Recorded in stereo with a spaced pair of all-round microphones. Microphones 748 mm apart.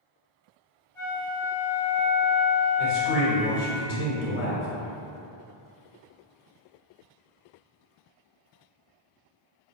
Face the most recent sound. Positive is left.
turn(degrees=85)